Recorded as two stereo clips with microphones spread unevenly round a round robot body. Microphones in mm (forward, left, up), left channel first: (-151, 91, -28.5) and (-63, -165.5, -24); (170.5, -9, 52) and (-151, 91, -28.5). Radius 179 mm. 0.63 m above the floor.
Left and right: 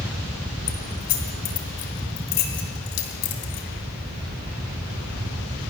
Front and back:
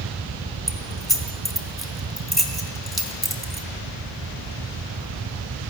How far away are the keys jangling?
About 3 m.